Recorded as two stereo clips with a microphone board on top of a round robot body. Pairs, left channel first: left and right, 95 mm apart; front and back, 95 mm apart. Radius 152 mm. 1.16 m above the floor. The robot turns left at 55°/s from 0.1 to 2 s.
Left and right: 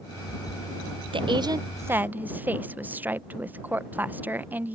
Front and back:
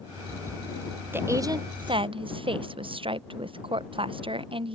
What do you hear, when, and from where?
1.1 s a woman speaking: 110° right; by 4.8 s 160° right